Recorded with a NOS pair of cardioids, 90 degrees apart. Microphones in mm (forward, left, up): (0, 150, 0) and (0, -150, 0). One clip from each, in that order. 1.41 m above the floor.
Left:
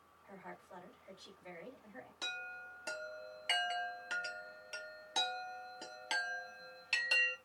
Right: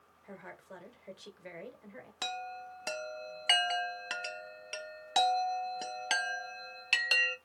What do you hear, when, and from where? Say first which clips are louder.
0.2 s a woman speaking: right 3 dB; 55° right, 1.3 m
2.2 s a chime: right 4 dB; 35° right, 0.6 m